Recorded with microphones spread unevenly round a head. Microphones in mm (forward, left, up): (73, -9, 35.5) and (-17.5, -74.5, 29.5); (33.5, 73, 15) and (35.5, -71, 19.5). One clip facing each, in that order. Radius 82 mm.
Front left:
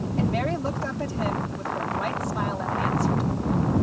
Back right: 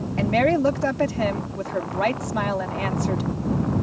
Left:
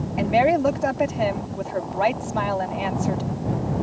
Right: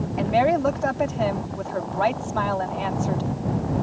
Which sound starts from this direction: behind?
A woman speaking, at 0.2 s.